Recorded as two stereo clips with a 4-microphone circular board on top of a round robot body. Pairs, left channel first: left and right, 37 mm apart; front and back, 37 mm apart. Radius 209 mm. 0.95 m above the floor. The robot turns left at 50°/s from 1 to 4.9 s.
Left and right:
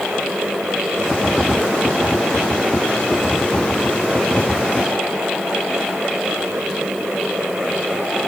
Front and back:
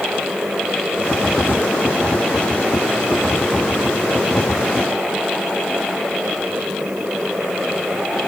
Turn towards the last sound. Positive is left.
No sound to turn to.